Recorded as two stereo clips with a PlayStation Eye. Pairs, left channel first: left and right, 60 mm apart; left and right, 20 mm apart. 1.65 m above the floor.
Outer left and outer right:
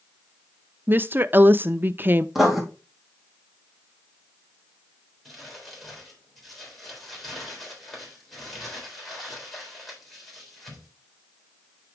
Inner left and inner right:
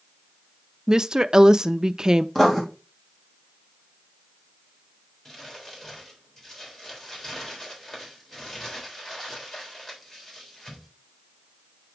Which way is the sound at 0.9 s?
35° right (ahead or behind).